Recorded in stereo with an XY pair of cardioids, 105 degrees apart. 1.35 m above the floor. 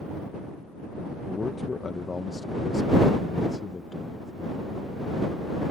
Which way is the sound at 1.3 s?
25° left.